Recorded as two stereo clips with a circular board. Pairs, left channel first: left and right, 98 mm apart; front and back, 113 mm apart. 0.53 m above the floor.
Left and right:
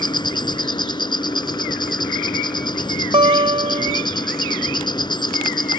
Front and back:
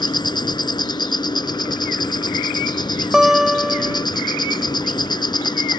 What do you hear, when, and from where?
0.0 s an insect: 50° left
3.1 s a guitar: 95° right